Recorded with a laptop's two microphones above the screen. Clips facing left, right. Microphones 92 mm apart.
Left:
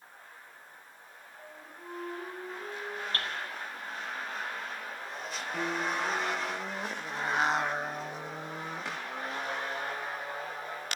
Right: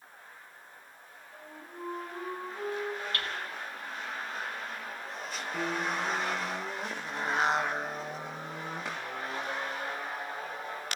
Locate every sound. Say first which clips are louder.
1.3 s a flute: right 4 dB; 60° right (ahead or behind), 8.5 m
3.1 s hammering: even; 35° left (ahead or behind), 5 m
5.5 s a piano: even; centre (ahead or behind), 0.9 m